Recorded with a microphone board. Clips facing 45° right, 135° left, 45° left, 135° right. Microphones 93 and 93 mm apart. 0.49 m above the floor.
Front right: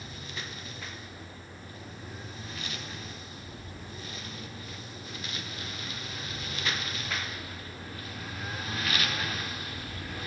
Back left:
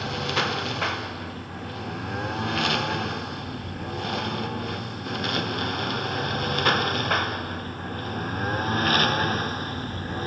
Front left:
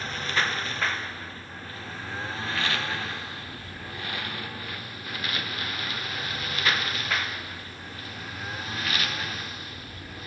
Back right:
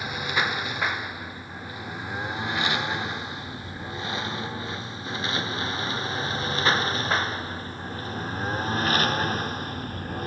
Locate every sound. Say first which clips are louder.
0.0 s a lawn mower: back left 16 dB, back right 2 dB; 145° left; by 10.3 s straight behind